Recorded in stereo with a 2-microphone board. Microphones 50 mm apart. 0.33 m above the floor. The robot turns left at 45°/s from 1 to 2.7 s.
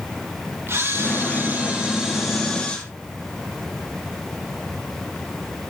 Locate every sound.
0.7 s a camera shutter: 125° right, 8 m; by 2.8 s 160° left, 8 m